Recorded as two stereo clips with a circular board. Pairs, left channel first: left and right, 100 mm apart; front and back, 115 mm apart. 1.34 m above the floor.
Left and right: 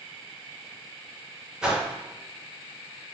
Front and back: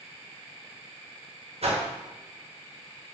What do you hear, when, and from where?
1.6 s a whoosh: 170° right, 0.7 m